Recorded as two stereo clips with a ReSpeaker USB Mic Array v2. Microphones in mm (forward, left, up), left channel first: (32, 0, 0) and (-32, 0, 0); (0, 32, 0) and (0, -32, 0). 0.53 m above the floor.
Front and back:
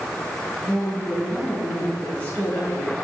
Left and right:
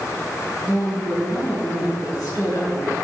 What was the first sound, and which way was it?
A woman speaking, 65° left.